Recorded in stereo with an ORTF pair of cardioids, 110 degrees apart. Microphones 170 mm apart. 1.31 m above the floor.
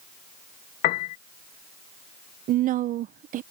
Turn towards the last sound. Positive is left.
turn(degrees=-55)